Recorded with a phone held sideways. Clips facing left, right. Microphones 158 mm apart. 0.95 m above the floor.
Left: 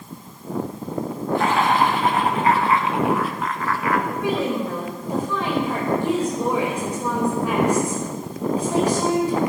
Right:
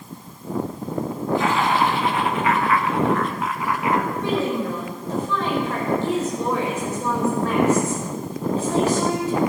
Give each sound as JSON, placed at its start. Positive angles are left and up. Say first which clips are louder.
{"t": 1.4, "sound": "laughter", "louder": "left 2 dB", "side_deg": 60, "distance_m": 2.0}
{"t": 4.1, "sound": "a woman speaking", "louder": "even", "side_deg": 15, "distance_m": 4.5}